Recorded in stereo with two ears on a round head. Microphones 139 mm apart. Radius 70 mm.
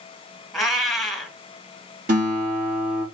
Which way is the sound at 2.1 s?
55° right (ahead or behind).